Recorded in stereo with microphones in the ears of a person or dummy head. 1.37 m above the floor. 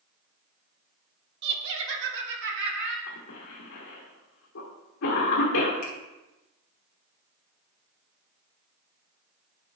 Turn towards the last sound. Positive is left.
turn(degrees=45)  # may be behind; listen again after turning